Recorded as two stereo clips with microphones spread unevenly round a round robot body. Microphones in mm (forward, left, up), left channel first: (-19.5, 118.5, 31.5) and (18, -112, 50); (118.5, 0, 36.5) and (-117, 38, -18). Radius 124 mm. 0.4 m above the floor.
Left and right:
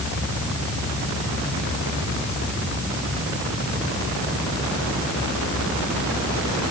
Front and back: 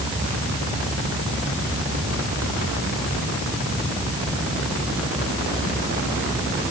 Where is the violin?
I don't hear a violin.